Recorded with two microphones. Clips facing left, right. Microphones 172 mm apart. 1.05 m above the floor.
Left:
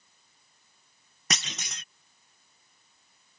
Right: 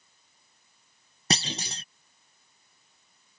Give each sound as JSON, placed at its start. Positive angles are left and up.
{"t": 1.3, "sound": "a clunk", "side_deg": -30}